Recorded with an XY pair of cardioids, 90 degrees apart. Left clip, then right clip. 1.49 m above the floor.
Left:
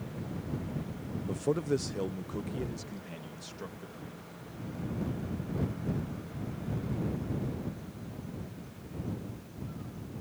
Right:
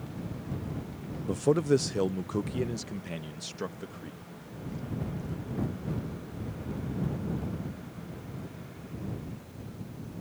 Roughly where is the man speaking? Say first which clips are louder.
Right 6 dB; ahead right.